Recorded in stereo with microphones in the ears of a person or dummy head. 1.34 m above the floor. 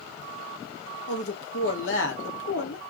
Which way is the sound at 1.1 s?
75° left (ahead or behind).